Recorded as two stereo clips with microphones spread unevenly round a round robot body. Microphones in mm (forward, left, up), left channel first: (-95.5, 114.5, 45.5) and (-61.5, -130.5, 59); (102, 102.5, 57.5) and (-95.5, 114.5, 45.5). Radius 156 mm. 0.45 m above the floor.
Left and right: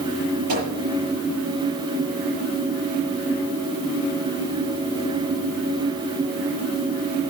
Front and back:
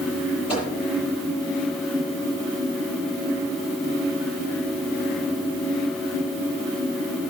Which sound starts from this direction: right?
A microwave, at 0.5 s.